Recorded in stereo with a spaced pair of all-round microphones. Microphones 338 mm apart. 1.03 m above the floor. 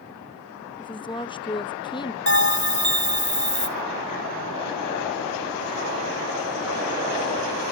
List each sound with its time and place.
0.8 s a woman speaking: 15° left (ahead or behind), 0.9 m
2.3 s a bell: 40° left (ahead or behind), 2.5 m